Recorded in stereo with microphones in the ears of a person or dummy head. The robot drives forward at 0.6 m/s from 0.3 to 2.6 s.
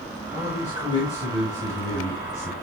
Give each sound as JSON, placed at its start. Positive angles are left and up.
{"t": 0.3, "sound": "a man speaking", "side_deg": -30, "distance_m": 6.0}